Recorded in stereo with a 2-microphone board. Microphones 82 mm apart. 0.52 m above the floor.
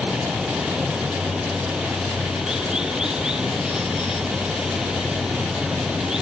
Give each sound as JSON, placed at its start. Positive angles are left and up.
{"t": 0.0, "sound": "running water", "side_deg": -5}